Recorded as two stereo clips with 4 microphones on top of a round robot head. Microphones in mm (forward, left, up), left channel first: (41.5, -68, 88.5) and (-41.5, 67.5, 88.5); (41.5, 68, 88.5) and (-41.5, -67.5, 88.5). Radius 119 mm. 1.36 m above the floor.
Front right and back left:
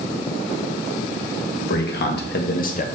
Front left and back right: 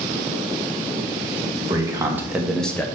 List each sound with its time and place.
1.6 s a man speaking: 55° right, 2.0 m; by 2.9 s 20° right, 1.2 m